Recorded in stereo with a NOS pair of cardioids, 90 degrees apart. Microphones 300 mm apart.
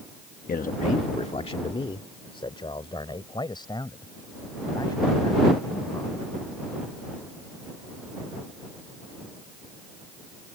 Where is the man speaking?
30° left; by 6.3 s 10° left.